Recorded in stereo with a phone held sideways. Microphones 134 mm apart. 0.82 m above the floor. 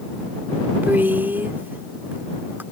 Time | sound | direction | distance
0.8 | a woman speaking | 15° right (ahead or behind) | ?